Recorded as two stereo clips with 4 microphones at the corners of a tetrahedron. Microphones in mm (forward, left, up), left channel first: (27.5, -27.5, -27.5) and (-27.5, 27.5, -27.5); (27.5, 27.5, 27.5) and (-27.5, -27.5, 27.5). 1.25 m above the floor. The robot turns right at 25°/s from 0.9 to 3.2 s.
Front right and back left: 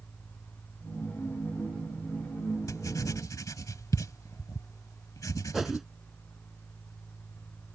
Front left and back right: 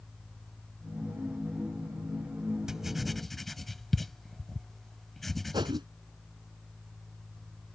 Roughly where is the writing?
Ahead right.